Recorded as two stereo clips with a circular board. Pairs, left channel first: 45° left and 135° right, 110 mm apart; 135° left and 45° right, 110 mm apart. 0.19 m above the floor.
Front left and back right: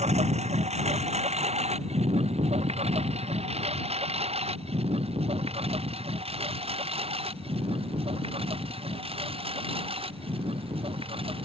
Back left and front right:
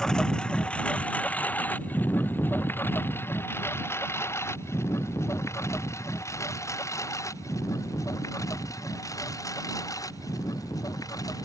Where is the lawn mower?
140° right; by 11.5 s 165° right.